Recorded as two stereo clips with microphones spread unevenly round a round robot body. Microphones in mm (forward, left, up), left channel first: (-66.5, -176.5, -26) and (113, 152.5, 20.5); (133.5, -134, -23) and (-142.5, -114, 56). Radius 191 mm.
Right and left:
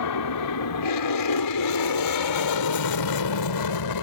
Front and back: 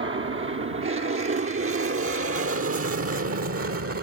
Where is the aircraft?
140° right; by 4.0 s 145° right.